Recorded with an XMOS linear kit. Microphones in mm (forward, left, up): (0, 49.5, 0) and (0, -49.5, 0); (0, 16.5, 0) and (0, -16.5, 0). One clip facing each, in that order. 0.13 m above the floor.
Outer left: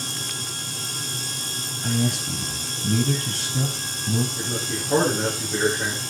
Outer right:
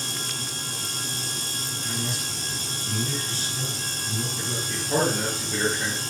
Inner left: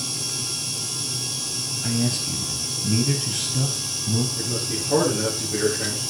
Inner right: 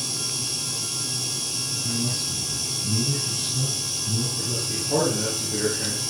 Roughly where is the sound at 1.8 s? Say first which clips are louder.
Outer left 10 dB, inner left 5 dB; left.